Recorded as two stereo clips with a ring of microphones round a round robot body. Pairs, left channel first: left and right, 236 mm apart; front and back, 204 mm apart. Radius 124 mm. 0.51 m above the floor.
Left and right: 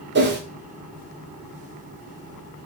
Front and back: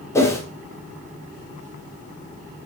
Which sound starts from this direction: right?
A whoosh, at 0.1 s.